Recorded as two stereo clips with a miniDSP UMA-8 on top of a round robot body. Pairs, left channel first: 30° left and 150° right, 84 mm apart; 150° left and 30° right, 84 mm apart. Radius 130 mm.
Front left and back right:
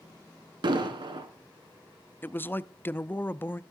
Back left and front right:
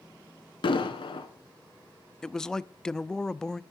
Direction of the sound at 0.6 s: 175° left.